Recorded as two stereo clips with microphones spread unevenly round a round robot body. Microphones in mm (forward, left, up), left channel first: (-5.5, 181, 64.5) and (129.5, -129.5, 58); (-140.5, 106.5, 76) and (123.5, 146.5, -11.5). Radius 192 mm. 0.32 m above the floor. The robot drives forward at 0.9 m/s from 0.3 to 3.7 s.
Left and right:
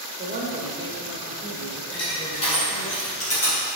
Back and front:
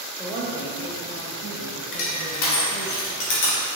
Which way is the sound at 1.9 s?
170° right.